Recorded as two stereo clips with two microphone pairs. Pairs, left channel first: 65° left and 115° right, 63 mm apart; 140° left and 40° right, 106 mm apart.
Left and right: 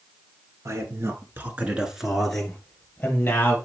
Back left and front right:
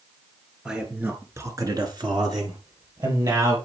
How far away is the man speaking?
About 1.9 m.